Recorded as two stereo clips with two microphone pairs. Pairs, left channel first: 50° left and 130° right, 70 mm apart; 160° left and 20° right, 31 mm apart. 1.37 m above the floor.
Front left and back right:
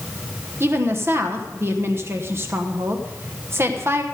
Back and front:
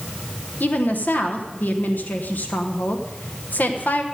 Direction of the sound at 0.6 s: 175° left.